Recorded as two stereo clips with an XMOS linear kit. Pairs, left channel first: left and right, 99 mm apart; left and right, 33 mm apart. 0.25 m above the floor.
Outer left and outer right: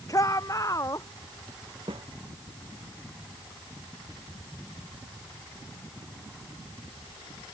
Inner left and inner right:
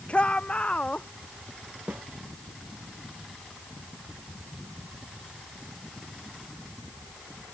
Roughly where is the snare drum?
Right.